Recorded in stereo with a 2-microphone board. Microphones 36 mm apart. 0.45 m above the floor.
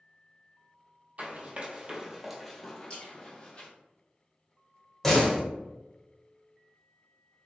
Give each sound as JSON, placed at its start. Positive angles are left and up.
{"t": 1.2, "sound": "running footsteps", "side_deg": -45, "distance_m": 0.9}
{"t": 2.9, "sound": "a splash", "side_deg": 30, "distance_m": 1.2}
{"t": 5.0, "sound": "a door slam", "side_deg": 10, "distance_m": 0.7}